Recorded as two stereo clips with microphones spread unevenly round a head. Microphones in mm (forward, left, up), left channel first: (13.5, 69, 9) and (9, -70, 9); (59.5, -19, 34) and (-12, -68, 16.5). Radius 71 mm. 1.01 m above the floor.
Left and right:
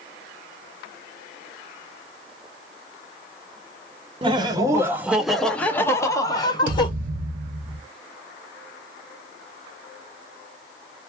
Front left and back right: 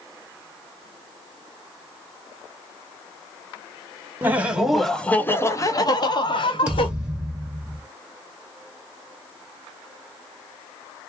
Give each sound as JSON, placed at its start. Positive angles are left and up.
{"t": 4.2, "sound": "laughter", "azimuth_deg": -120, "distance_m": 0.8}
{"t": 6.7, "sound": "a thud", "azimuth_deg": -65, "distance_m": 2.0}